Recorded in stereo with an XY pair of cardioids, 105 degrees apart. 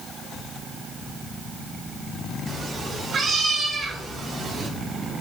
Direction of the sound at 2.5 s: 55° right.